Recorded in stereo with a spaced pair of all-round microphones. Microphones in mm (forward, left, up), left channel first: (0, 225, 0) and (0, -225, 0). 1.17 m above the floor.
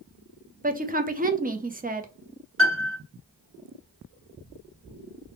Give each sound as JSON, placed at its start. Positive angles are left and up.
{"t": 0.6, "sound": "a woman speaking", "side_deg": -20, "distance_m": 0.5}
{"t": 2.6, "sound": "a piano", "side_deg": -30, "distance_m": 1.0}